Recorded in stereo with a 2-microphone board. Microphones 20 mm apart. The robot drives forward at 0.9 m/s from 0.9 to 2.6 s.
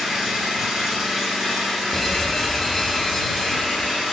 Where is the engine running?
10° right (ahead or behind), 3 m; by 4.1 s 5° right (ahead or behind), 4.5 m.